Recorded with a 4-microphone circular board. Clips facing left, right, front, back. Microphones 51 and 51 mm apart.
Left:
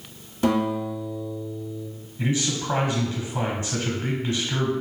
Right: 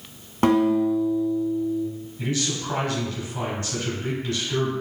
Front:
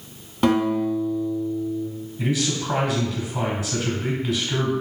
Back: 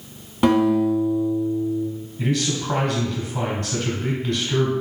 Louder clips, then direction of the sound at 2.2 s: Left 2 dB, back 1 dB; 75° left.